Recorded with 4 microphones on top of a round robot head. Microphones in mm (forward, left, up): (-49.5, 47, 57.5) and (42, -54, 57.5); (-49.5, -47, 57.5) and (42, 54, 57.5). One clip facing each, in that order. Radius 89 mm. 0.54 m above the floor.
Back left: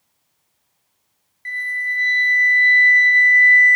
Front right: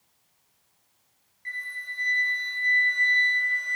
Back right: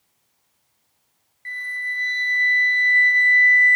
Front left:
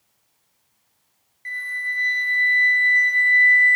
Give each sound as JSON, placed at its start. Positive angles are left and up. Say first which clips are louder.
{"t": 1.4, "sound": "a flute", "louder": "back left 11 dB, front left 1 dB", "azimuth_deg": 120, "distance_m": 0.6}